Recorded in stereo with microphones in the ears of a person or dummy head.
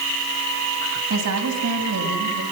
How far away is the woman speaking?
About 9 m.